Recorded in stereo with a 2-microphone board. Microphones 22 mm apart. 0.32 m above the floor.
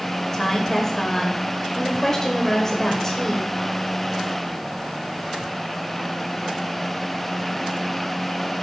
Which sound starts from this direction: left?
A woman speaking, at 0.3 s.